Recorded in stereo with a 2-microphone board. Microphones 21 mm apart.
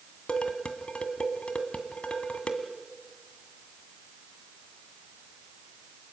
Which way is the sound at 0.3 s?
75° left (ahead or behind).